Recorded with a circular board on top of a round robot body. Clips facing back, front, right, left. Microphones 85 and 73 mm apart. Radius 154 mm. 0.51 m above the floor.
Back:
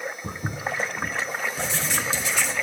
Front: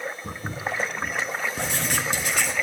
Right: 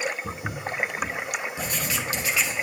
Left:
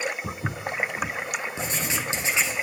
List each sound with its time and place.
0.2 s footsteps: 115° left, 2 m
1.6 s writing: 30° left, 1.3 m